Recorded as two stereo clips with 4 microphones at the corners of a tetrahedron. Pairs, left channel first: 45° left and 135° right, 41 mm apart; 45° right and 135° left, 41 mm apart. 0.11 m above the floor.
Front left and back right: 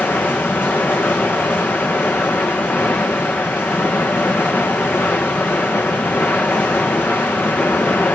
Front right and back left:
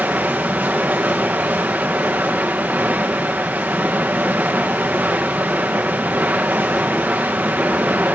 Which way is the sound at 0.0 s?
80° left.